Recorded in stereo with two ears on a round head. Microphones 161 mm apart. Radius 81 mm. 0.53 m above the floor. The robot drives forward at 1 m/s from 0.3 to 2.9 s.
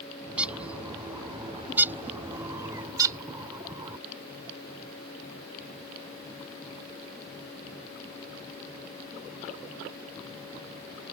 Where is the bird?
5° right (ahead or behind); by 4.0 s 20° right (ahead or behind).